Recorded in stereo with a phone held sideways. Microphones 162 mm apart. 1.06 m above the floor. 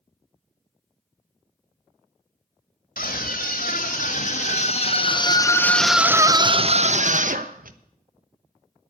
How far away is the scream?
About 2 m.